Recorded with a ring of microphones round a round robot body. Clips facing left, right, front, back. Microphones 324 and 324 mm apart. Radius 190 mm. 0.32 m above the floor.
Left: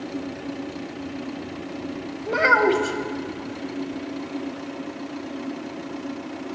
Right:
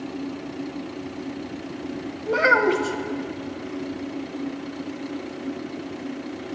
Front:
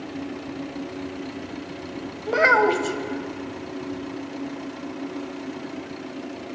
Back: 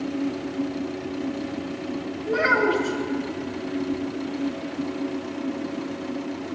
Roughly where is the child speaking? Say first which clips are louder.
Even, front 2 dB; ahead.